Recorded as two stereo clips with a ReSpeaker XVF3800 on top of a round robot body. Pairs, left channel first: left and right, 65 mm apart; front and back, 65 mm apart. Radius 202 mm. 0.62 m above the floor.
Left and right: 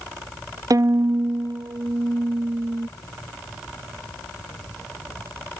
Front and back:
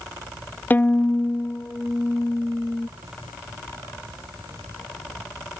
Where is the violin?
60° right.